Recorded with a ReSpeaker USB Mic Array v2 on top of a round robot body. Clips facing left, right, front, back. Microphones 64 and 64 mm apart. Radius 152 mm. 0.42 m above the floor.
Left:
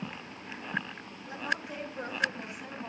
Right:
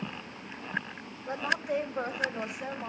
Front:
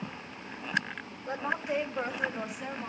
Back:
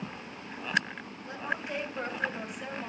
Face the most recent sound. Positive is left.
turn(degrees=-95)